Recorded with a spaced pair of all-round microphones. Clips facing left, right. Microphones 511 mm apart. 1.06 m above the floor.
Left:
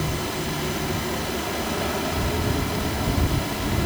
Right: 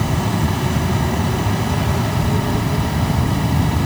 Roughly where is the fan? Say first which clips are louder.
Right 7 dB; right.